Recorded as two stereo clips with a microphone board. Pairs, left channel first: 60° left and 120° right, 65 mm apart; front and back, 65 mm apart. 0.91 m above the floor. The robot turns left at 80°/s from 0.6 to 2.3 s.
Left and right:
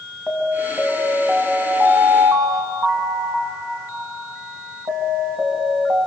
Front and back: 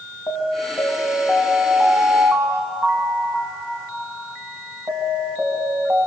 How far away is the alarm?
About 3.5 m.